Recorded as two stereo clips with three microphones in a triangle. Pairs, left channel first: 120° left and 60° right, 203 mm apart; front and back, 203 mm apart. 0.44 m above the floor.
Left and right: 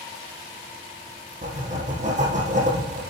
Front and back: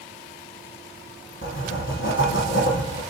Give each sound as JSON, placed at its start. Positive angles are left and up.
{"t": 1.4, "sound": "writing", "azimuth_deg": -5, "distance_m": 3.5}